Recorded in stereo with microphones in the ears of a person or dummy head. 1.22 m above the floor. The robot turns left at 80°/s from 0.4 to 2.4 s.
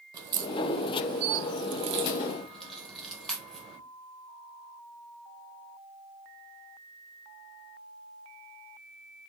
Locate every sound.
0.1 s a crack: 25° right (ahead or behind), 0.7 m; by 3.8 s 5° left (ahead or behind), 0.7 m